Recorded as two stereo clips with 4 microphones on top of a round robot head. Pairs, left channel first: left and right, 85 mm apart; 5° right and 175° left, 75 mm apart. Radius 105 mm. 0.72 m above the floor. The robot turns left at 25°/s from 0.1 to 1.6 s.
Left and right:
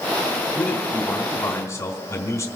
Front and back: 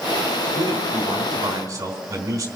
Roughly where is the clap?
No clap in this recording.